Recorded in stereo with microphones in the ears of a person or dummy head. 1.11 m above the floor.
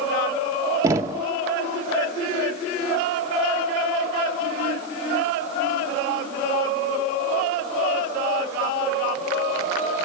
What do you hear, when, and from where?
0.8 s knocking: 20° right (ahead or behind), 0.7 m